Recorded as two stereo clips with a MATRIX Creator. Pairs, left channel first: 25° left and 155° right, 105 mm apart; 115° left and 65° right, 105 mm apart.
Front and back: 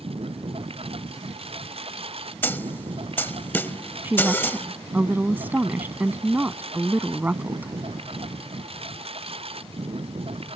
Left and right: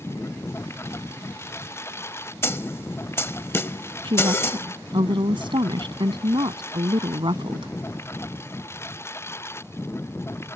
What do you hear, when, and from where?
0.0 s a lawn mower: straight behind
2.4 s a snare drum: 75° left
4.0 s a woman speaking: 90° right